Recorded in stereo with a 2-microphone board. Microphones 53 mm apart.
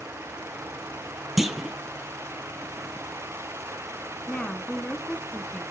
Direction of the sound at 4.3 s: 25° left (ahead or behind).